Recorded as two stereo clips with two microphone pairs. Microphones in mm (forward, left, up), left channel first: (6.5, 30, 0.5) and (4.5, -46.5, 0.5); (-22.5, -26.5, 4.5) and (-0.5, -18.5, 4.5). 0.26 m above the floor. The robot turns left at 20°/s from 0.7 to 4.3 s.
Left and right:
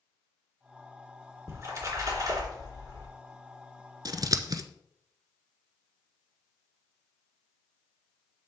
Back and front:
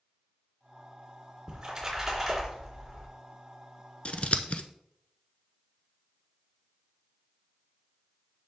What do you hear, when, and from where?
1.5 s a splash: 45° right, 3 m; by 3.1 s 75° right, 3 m
4.0 s scissors: 120° right, 0.7 m; by 4.6 s 125° right, 0.7 m